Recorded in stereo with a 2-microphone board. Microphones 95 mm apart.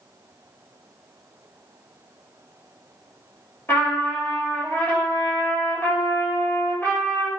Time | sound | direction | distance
3.7 | a trumpet | 25° left (ahead or behind) | 1.9 m